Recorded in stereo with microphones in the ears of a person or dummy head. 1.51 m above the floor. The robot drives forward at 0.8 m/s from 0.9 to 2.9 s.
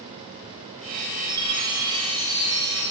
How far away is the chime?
About 4.5 m.